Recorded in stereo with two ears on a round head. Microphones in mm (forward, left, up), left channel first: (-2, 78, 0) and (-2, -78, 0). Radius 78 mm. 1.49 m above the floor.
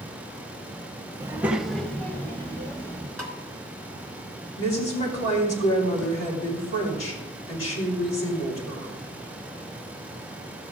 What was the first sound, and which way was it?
A child speaking, 15° right (ahead or behind).